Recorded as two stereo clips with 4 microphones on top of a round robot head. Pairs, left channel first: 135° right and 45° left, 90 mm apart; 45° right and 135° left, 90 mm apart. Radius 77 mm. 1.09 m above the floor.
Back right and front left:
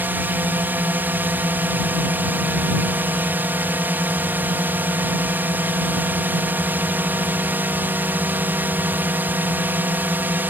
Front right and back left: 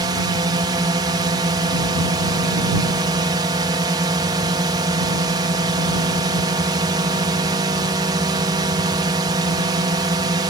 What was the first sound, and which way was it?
A drone, 110° left.